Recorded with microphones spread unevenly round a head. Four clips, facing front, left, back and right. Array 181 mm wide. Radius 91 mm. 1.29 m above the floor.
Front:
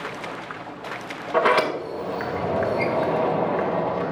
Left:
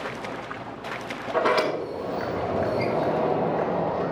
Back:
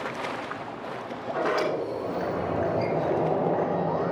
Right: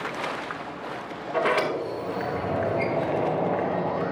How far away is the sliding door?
About 2 m.